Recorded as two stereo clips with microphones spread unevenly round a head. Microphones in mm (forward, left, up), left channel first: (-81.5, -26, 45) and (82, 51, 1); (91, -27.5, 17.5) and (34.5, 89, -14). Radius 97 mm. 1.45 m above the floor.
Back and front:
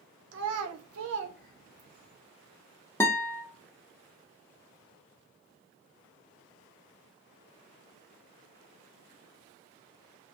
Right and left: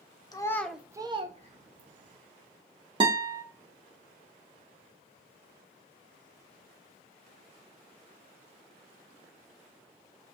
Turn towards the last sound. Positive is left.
turn(degrees=170)